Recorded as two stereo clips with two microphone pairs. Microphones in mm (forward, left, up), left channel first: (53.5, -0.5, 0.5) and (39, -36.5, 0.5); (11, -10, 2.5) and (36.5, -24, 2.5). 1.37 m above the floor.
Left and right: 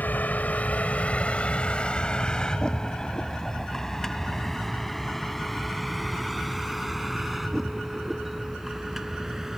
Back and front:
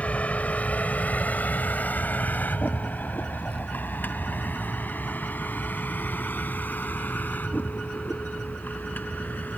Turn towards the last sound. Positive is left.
turn(degrees=165)